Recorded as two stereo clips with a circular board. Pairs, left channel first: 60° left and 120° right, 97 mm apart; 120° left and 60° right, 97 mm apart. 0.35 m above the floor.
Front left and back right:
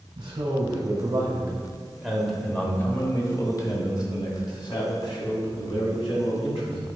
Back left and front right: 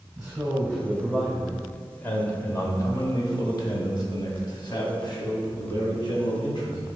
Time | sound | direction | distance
0.2 | a man speaking | 130° right | 1.6 m